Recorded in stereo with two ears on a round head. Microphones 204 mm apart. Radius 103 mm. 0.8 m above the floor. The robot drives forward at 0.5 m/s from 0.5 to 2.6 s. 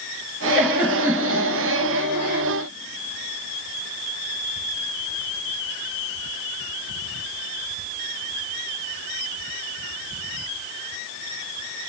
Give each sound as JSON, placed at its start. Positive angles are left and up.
{"t": 0.6, "sound": "a giggle", "side_deg": -5, "distance_m": 2.0}